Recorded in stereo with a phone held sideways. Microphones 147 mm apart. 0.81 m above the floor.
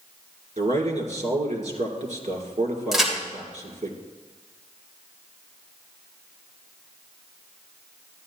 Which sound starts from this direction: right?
A man speaking, at 0.6 s.